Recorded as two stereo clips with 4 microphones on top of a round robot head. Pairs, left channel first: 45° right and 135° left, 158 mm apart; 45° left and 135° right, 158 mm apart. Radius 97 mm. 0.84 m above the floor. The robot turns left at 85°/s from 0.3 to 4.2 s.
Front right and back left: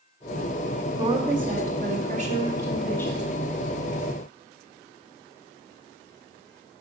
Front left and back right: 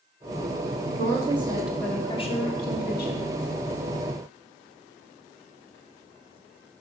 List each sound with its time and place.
1.0 s a woman speaking: 160° right, 1.9 m; by 3.3 s 5° left, 1.9 m